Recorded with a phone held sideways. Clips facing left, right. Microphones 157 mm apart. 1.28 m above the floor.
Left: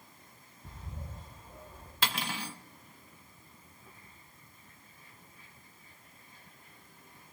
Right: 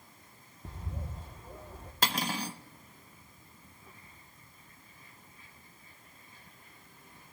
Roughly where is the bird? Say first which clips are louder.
Right 4 dB; right.